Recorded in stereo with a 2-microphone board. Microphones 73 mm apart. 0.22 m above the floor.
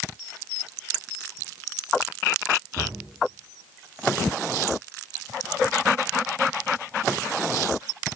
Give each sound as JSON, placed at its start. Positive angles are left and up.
{"t": 2.8, "sound": "a cupboard door", "side_deg": 20, "distance_m": 4.0}